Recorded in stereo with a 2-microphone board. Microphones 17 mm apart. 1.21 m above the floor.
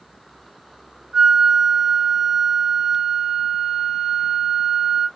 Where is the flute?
50° right (ahead or behind), 1.4 m.